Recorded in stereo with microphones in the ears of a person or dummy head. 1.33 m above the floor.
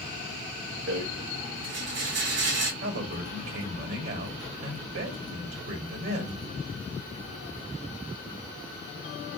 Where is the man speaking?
70° right (ahead or behind), 1.1 m.